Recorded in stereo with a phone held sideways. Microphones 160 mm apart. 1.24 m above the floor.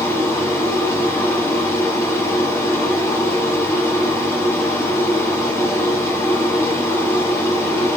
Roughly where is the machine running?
Centre.